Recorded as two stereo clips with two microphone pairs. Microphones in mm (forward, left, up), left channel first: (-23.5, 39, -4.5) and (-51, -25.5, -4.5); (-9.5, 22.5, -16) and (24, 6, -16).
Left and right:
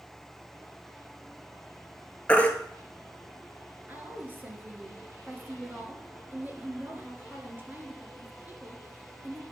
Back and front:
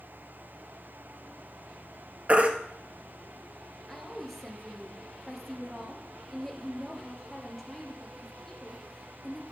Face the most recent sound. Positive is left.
turn(degrees=-135)